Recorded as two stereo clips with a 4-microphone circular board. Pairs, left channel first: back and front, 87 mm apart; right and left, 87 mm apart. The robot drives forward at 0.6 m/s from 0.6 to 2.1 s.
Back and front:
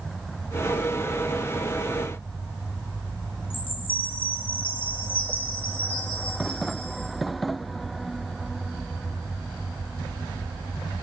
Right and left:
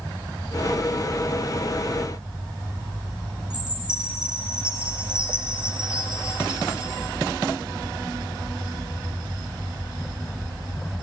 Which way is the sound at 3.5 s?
170° left.